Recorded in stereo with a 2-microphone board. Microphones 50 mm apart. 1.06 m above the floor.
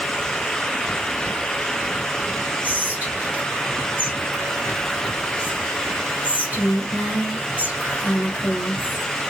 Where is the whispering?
35° right (ahead or behind), 2.5 m.